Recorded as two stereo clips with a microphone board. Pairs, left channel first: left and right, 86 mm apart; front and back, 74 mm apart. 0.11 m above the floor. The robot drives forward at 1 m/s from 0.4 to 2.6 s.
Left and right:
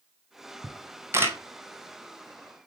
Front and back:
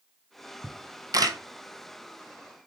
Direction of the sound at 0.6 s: 120° right.